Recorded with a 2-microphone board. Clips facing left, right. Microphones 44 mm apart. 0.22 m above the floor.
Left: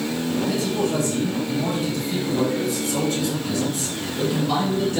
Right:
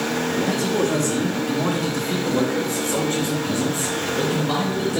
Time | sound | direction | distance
0.4 | a man speaking | 65° right (ahead or behind) | 3.5 m